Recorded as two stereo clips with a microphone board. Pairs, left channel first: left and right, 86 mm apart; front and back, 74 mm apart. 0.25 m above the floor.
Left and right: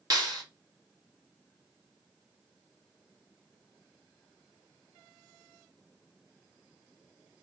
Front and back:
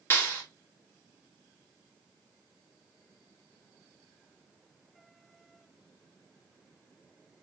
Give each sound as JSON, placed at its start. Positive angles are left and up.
{"t": 0.1, "sound": "a clap", "azimuth_deg": -55, "distance_m": 2.5}